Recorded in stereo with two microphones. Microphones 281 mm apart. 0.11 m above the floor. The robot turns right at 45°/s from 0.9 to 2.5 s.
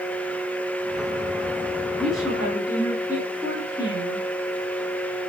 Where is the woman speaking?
5° left (ahead or behind), 1.5 m; by 4.3 s 10° right (ahead or behind), 1.5 m.